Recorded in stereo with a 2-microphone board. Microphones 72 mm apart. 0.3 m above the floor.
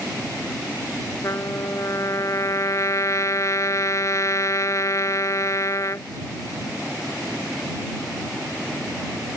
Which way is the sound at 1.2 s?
45° left (ahead or behind).